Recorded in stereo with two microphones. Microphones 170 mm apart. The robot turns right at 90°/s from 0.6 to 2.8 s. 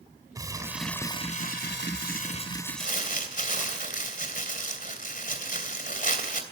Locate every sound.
0.3 s crumpling: 20° right, 1.9 m; by 3.8 s 175° left, 1.9 m
2.8 s crumpling: 55° left (ahead or behind), 2.5 m